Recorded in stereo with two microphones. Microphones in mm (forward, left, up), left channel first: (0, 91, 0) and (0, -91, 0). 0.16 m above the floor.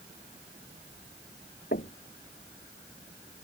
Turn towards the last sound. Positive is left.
turn(degrees=65)  # may be behind; listen again after turning